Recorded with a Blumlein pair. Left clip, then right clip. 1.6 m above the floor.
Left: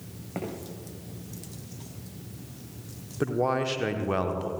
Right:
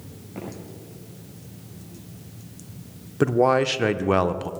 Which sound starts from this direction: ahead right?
A man speaking, at 3.2 s.